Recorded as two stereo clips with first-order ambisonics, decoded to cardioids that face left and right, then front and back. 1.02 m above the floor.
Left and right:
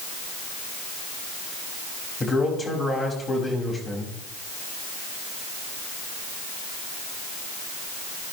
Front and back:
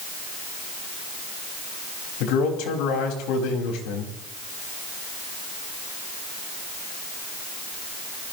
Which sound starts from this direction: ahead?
A man speaking, at 2.2 s.